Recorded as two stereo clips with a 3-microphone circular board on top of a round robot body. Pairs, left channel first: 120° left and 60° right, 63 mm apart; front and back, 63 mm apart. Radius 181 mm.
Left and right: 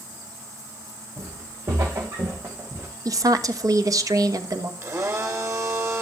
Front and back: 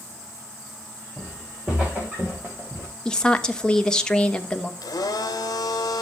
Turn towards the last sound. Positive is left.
turn(degrees=-20)